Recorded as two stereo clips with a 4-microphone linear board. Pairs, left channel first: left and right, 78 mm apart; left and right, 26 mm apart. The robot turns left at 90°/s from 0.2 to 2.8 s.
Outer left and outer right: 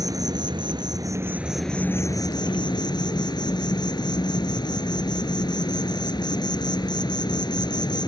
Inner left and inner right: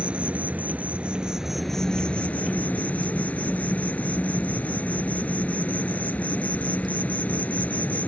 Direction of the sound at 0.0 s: 55° right.